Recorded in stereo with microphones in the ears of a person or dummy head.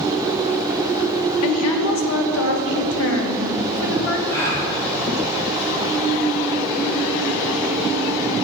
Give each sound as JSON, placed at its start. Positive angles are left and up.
{"t": 1.4, "sound": "a woman speaking", "side_deg": 75, "distance_m": 1.2}
{"t": 4.3, "sound": "a gasp", "side_deg": 20, "distance_m": 1.8}